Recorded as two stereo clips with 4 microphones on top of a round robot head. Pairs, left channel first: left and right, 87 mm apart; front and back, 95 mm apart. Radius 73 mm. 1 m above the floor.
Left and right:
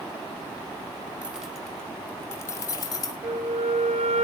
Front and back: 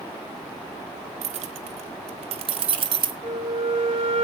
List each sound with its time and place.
1.2 s keys jangling: 170° right, 1.0 m; by 3.1 s 145° left, 1.4 m
3.2 s a flute: 125° right, 1.2 m